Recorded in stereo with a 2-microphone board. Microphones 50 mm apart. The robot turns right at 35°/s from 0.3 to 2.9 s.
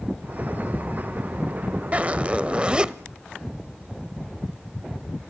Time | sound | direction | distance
1.9 | a zipper | 75° right | 0.5 m